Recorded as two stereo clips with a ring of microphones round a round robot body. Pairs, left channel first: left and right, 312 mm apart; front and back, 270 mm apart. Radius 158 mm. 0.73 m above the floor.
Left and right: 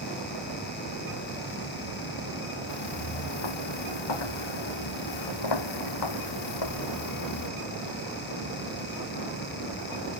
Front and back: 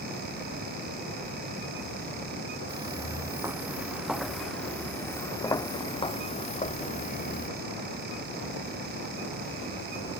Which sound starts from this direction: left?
Footsteps, at 2.7 s.